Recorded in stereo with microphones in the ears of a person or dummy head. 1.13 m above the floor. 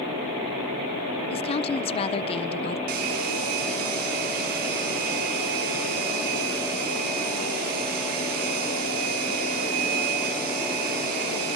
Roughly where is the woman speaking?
Left.